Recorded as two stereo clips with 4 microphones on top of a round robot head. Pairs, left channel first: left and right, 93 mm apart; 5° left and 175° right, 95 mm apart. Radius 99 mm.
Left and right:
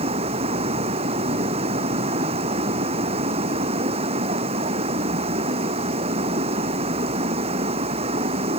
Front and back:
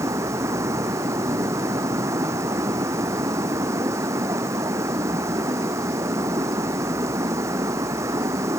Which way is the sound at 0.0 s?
105° right.